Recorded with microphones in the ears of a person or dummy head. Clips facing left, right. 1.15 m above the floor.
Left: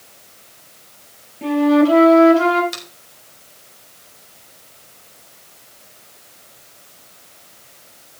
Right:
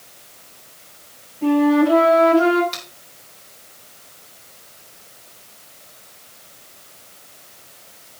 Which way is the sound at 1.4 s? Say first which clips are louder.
Left 1 dB; 40° left (ahead or behind).